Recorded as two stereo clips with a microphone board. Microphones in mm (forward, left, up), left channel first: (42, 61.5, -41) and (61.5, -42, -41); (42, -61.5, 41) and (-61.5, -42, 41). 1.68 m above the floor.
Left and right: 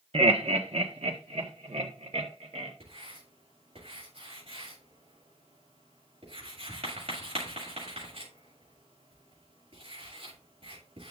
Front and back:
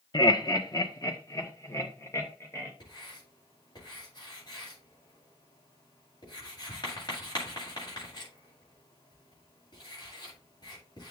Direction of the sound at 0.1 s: 60° right.